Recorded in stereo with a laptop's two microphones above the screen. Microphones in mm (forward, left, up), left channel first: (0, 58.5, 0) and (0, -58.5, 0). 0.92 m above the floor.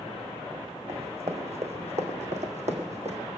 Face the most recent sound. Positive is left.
turn(degrees=-65)  # may be behind; listen again after turning